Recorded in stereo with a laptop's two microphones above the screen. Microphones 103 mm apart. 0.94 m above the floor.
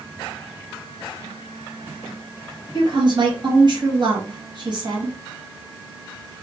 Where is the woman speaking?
45° right (ahead or behind), 1.3 m.